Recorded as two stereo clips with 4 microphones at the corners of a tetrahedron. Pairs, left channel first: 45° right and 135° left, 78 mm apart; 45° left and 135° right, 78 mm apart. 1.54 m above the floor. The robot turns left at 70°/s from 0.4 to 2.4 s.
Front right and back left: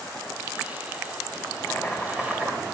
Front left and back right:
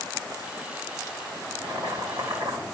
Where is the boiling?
100° right, 2 m; by 2.6 s 155° right, 2 m.